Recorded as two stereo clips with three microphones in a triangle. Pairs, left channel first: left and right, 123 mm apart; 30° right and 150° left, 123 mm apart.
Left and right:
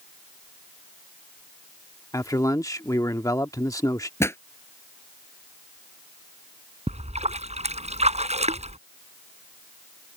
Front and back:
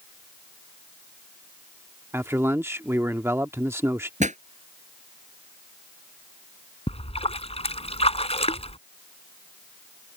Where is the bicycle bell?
I don't hear a bicycle bell.